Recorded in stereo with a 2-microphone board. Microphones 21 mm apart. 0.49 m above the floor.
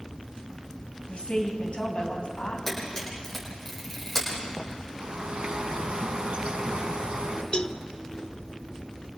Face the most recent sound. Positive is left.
turn(degrees=55)  # may be behind; listen again after turning